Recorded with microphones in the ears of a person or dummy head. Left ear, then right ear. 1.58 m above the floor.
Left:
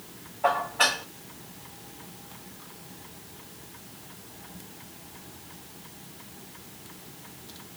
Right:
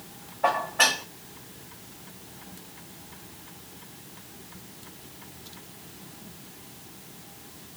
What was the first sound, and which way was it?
Dishes clattering, 45° right (ahead or behind).